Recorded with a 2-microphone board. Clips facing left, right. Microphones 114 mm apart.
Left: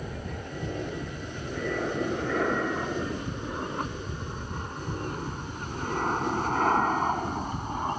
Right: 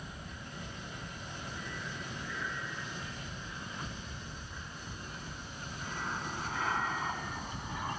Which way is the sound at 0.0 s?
80° left.